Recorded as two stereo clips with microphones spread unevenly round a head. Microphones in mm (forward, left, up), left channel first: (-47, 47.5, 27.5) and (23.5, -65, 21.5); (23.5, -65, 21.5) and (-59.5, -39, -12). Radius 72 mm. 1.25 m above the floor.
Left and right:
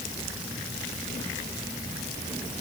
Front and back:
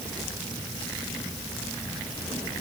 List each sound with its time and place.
Only background noise.